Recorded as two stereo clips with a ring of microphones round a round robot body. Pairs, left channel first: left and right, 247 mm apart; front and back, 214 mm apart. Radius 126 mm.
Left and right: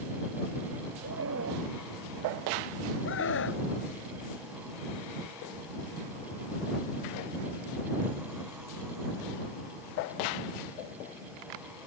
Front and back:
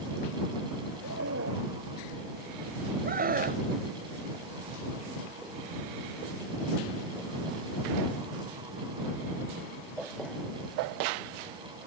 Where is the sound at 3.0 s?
130° left.